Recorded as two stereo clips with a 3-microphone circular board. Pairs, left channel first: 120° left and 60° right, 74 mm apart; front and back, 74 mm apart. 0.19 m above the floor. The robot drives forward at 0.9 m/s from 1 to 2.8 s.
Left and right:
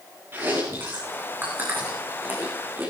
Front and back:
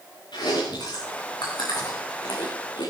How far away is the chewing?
About 8 m.